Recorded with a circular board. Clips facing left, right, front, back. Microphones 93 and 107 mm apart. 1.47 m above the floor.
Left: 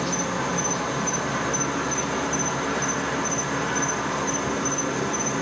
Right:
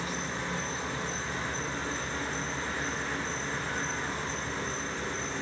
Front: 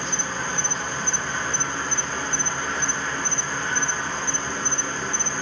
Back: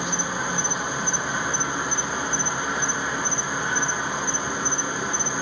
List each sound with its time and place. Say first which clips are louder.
0.0 s an insect: left 9 dB, back 2 dB; 105° left, 1.0 m